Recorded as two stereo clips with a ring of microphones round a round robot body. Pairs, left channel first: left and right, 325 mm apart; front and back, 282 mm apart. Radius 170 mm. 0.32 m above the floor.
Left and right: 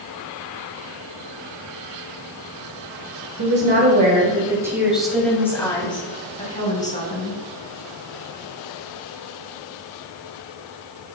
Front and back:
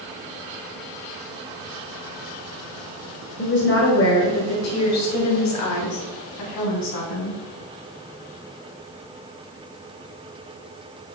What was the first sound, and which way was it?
A woman speaking, 45° right.